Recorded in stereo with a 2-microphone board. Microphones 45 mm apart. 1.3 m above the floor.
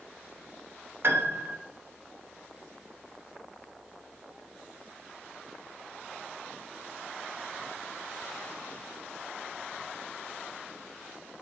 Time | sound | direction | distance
1.0 | a piano | 55° right (ahead or behind) | 0.7 m